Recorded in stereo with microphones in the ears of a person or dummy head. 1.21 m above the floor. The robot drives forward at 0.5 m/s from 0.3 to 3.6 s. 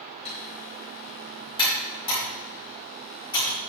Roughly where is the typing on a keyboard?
Left.